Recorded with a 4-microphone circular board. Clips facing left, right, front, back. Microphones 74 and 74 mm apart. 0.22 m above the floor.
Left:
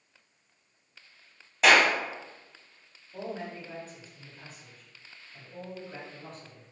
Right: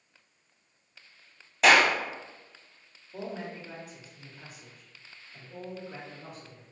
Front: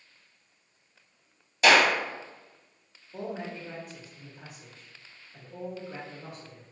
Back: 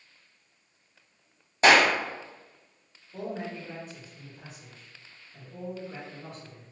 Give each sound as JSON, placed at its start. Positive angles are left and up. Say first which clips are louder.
{"t": 1.6, "sound": "a clap", "louder": "even, back 1 dB", "azimuth_deg": 180, "distance_m": 0.8}
{"t": 3.1, "sound": "a man speaking", "louder": "even, back 1 dB", "azimuth_deg": -30, "distance_m": 1.3}